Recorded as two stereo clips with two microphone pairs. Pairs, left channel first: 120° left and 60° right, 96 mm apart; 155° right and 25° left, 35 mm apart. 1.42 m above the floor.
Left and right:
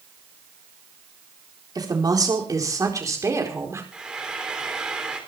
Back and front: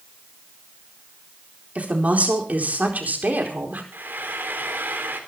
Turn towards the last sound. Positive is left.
turn(degrees=20)